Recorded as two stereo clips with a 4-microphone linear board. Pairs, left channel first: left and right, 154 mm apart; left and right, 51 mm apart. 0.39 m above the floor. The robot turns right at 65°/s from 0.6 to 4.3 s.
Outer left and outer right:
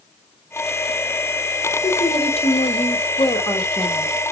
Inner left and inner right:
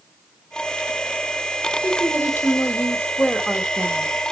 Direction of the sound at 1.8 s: 35° left.